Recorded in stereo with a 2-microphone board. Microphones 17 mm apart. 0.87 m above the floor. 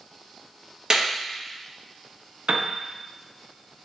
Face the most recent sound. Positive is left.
turn(degrees=-80)